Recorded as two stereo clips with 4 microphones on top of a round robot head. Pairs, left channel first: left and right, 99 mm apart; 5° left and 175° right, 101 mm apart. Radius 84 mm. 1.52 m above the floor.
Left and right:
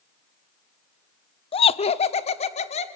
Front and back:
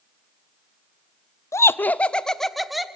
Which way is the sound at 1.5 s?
65° left.